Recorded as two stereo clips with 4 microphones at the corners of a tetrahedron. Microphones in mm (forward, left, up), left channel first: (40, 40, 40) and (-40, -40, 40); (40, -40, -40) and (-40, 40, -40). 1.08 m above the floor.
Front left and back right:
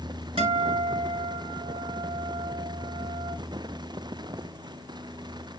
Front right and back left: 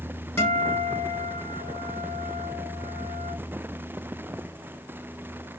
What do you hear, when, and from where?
0.4 s a guitar: 110° right, 1.1 m